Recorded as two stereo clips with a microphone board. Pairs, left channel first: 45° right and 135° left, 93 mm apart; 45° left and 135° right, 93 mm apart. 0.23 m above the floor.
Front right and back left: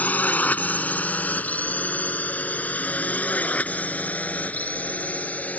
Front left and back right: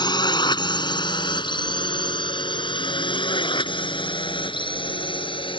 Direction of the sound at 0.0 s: 25° left.